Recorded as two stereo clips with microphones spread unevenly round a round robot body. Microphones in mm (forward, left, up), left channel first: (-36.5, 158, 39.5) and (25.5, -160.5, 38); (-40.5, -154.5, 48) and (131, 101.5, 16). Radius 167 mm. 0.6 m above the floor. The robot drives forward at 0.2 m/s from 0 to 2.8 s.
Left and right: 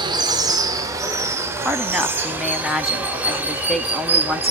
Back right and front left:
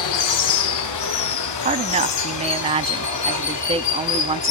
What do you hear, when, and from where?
0.0 s running water: 155° right, 1.0 m; by 4.5 s 165° right, 1.5 m
1.6 s a woman speaking: 10° left, 1.0 m